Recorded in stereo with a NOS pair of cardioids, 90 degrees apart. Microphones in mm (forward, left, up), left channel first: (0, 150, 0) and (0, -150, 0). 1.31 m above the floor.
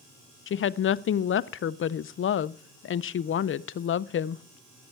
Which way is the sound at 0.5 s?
45° left.